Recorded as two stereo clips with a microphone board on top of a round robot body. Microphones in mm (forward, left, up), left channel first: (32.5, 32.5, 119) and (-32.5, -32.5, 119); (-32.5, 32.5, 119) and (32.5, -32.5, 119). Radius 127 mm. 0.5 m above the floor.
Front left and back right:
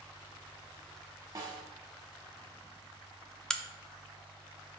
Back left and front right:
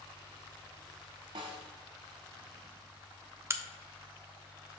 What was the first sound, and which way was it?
A snare drum, 75° right.